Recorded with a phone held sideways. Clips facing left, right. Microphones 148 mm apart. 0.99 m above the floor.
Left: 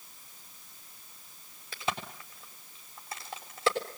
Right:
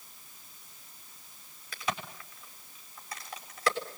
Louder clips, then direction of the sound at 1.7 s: Left 1 dB; 25° left (ahead or behind).